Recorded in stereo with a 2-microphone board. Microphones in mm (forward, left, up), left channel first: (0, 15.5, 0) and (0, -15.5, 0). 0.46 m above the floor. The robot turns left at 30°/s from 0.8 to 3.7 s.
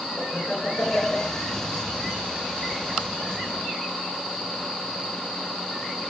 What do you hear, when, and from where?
0.2 s laughter: 60° left (ahead or behind), 7.5 m; by 1.3 s 75° left (ahead or behind), 7.5 m